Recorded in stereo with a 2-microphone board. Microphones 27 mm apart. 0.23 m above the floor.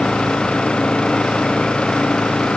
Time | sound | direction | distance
0.0 | an engine running | 40° left (ahead or behind) | ?